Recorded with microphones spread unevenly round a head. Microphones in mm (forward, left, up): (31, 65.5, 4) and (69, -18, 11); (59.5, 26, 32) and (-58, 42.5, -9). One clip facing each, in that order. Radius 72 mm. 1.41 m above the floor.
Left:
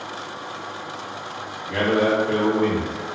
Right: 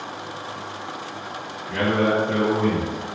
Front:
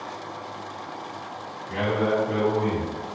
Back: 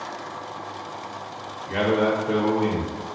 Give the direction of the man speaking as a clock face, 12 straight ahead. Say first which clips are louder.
Left 1 dB, back 3 dB; 7 o'clock.